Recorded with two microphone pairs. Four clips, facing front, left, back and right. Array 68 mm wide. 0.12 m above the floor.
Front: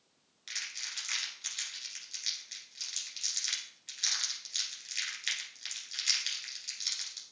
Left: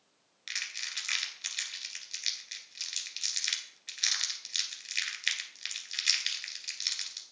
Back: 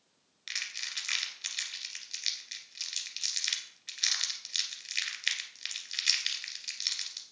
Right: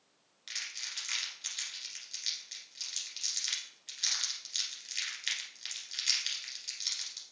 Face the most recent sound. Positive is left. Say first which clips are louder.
# left 5 dB, back 3 dB
turn(degrees=125)